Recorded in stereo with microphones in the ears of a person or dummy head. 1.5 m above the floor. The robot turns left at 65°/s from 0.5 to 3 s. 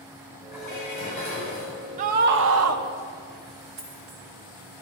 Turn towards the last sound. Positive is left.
turn(degrees=-75)  # may be behind; listen again after turning